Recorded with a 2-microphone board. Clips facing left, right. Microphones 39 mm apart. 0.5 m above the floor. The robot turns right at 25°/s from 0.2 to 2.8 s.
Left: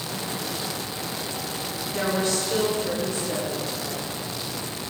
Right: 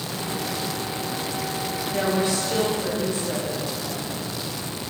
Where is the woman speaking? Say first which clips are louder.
Right 1 dB; 15° right (ahead or behind), 2.5 m; by 4.2 s 35° right (ahead or behind), 2.5 m.